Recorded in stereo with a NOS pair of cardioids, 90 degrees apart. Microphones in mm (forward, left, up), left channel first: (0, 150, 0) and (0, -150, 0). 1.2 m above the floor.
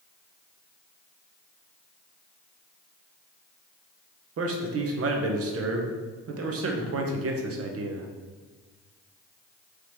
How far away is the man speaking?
About 0.9 m.